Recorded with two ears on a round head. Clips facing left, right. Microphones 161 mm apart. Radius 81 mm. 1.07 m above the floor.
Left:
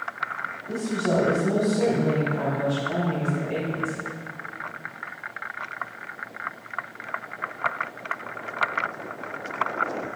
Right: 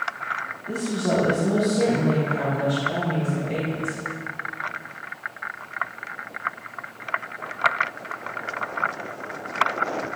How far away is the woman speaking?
About 1.5 m.